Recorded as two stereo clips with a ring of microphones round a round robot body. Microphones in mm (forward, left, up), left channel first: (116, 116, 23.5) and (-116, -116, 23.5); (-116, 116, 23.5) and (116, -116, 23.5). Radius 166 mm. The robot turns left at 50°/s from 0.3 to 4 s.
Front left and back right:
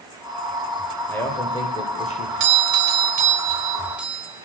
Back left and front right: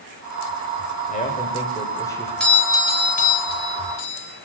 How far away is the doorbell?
About 1.4 m.